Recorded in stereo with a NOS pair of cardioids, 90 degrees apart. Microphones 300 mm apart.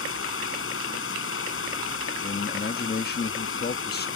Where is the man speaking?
30° left.